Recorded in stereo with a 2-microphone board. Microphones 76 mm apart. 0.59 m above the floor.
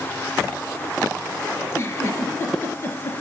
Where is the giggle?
35° left (ahead or behind), 2.5 m.